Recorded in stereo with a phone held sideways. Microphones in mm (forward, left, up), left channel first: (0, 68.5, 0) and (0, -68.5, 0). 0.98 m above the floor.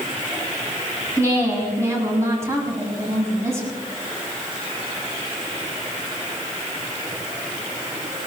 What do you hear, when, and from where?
1.2 s a woman speaking: 20° right (ahead or behind), 7.5 m